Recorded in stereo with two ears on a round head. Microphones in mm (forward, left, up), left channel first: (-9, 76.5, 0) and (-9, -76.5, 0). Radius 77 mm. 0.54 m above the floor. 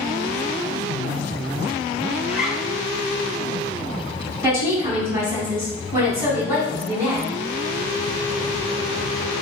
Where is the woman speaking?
15° right (ahead or behind), 3.5 m.